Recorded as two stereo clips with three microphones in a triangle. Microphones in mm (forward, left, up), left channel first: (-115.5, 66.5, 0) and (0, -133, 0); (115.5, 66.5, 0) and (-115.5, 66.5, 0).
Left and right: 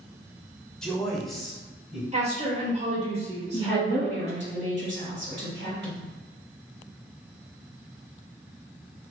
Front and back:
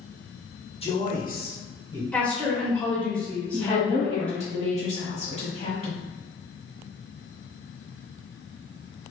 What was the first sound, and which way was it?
A man speaking, 35° left.